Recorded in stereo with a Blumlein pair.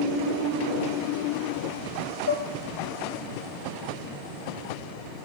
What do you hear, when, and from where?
2.3 s dishes clattering: 60° left, 0.6 m